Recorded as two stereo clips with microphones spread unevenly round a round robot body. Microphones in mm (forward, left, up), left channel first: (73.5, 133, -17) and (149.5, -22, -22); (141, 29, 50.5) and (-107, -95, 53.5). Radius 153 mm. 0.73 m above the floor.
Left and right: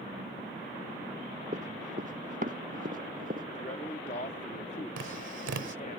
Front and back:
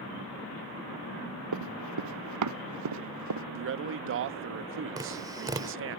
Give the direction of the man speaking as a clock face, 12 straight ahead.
6 o'clock.